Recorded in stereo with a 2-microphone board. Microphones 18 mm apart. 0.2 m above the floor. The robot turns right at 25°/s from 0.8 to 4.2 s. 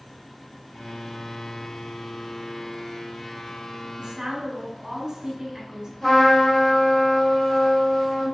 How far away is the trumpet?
About 2 m.